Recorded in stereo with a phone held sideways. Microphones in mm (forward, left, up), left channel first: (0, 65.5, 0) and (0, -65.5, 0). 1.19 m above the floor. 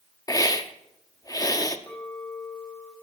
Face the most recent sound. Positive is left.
turn(degrees=25)  # may be behind; listen again after turning